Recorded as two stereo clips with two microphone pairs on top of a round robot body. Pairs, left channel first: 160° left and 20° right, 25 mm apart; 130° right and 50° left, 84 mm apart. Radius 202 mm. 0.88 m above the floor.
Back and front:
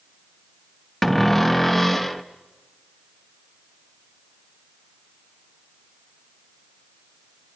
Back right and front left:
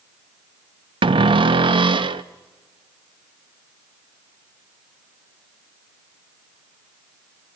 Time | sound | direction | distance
1.0 | a cupboard door | 75° left | 0.5 m